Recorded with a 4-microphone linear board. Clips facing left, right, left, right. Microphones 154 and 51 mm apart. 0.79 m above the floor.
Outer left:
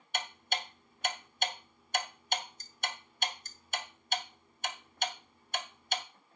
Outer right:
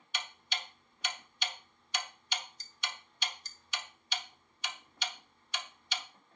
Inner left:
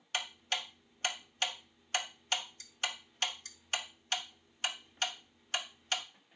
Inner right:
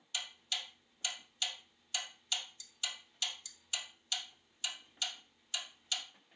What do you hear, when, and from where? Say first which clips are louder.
0.1 s ticking: outer left 6 dB, inner left 5 dB; 50° left (ahead or behind), 0.9 m